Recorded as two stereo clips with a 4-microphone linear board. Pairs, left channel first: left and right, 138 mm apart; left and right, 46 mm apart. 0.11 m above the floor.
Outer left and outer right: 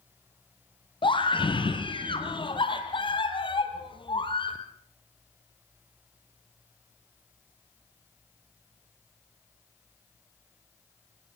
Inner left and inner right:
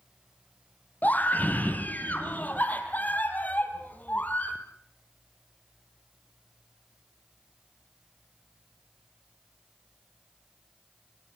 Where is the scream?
35° left (ahead or behind), 4 m.